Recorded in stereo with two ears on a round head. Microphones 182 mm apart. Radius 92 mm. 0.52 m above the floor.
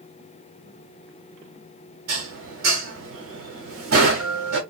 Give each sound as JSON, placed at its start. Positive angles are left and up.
{"t": 2.1, "sound": "dishes clattering", "side_deg": -70, "distance_m": 1.7}